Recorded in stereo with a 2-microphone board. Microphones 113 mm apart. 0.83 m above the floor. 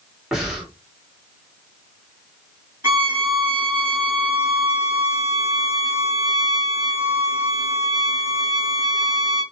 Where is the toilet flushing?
No toilet flushing in this recording.